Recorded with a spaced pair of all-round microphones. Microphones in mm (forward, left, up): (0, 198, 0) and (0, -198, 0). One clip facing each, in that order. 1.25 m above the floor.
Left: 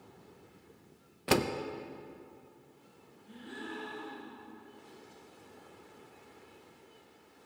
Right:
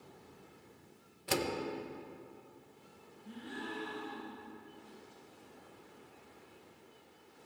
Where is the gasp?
85° right, 6 m.